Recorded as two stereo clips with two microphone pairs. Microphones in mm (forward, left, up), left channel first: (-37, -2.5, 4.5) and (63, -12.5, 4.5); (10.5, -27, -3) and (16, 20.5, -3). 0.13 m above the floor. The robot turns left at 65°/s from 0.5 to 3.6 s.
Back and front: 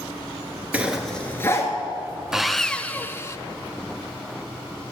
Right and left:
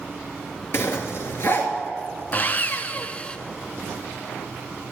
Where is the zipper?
75° right, 1.8 m; by 1.7 s 140° right, 1.8 m.